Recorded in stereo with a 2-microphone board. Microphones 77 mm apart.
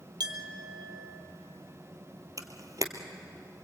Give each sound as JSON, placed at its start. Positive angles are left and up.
{"t": 0.2, "sound": "a clink", "side_deg": -65, "distance_m": 1.9}
{"t": 2.4, "sound": "a camera shutter", "side_deg": -45, "distance_m": 1.8}